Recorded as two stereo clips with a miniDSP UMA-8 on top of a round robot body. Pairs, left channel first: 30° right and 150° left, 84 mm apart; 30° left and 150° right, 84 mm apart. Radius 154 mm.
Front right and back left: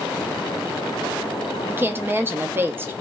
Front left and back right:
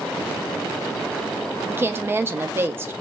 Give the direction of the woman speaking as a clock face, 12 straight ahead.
6 o'clock.